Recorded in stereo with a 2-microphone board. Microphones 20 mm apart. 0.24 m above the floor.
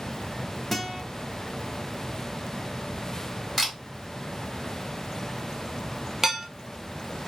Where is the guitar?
10° left (ahead or behind), 0.9 m.